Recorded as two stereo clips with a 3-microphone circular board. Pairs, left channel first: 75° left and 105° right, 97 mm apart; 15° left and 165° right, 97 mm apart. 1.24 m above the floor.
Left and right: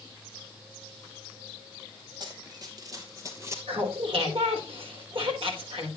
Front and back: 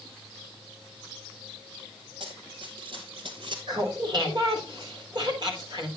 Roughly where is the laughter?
Behind right.